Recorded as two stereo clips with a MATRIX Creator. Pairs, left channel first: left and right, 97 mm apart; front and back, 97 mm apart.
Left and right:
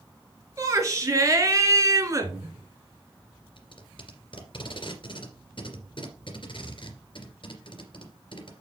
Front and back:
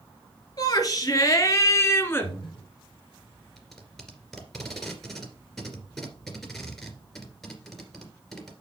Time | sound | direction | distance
0.6 | a shout | 40° right | 2.5 m
2.2 | breathing | 35° right | 4 m
3.6 | tape being pulled | 90° left | 2.5 m